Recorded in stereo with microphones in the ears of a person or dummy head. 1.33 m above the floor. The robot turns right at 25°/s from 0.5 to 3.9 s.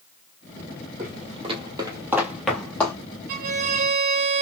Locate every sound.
1.0 s footsteps: 45° right (ahead or behind), 1.9 m; by 3.0 s 15° left (ahead or behind), 1.4 m
3.3 s a violin: 50° right (ahead or behind), 1.1 m; by 4.4 s 40° right (ahead or behind), 1.1 m